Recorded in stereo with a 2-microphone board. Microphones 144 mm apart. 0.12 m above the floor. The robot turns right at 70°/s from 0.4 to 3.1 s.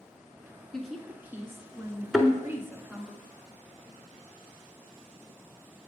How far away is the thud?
About 0.6 m.